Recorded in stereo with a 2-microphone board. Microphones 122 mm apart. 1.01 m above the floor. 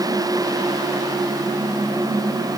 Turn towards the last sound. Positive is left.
No sound to turn to.